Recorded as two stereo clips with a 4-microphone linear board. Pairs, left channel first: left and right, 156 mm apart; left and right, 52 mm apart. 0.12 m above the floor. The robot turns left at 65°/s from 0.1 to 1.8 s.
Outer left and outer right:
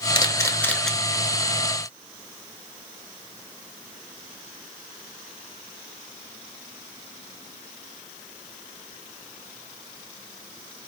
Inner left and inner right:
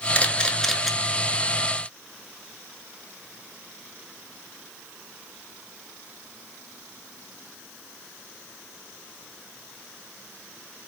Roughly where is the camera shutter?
Left.